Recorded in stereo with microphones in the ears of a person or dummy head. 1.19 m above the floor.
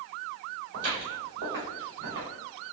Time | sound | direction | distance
0.7 | footsteps | 50° right (ahead or behind) | 2.0 m